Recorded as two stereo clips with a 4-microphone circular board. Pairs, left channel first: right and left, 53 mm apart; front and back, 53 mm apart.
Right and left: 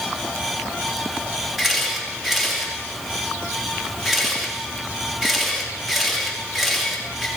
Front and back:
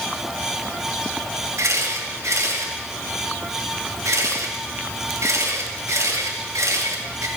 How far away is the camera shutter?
About 2.5 m.